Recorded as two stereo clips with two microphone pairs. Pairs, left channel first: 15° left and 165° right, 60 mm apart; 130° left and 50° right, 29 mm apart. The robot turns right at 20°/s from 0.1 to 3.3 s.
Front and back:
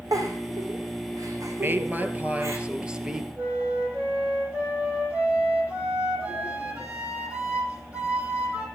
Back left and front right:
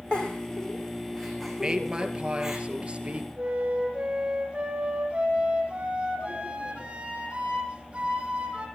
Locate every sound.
0.1 s a giggle: 175° right, 3.5 m; by 2.6 s 125° right, 3.5 m
1.6 s a woman speaking: 120° right, 2.5 m; by 3.3 s 85° right, 2.5 m
3.4 s a flute: 100° right, 4.5 m